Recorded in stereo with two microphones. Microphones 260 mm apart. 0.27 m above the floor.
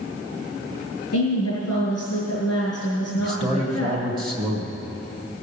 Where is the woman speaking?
65° left (ahead or behind), 4.5 m.